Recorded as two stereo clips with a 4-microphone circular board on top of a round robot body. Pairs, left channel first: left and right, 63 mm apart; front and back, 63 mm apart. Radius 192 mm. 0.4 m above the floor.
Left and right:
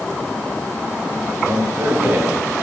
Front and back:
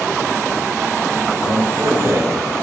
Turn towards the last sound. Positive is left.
turn(degrees=-150)